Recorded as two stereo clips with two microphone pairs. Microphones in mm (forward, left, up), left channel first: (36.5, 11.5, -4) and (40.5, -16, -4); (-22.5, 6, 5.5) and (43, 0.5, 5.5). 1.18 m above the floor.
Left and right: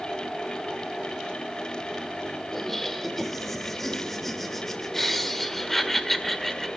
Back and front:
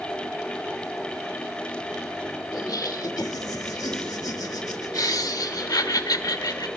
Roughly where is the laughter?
Behind.